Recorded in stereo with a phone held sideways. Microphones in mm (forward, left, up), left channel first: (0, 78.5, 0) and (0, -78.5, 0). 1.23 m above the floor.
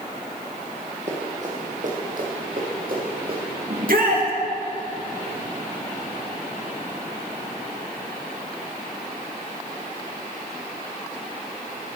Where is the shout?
70° right (ahead or behind), 2.0 m.